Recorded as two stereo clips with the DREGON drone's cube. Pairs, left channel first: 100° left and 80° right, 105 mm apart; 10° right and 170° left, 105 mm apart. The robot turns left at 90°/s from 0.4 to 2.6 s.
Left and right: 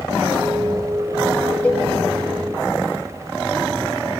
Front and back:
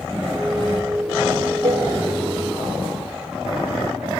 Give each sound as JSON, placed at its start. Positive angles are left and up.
{"t": 1.6, "sound": "a cowbell", "azimuth_deg": 180, "distance_m": 1.8}